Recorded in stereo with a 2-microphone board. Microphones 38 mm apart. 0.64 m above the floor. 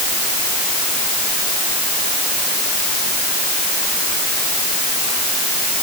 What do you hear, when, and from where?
Only background noise.